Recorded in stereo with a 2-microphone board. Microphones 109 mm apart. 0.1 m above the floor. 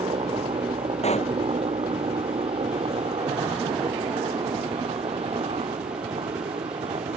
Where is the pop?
80° left.